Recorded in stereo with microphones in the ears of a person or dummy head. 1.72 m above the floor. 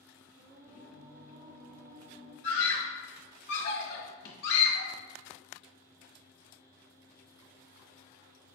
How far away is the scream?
About 1.1 m.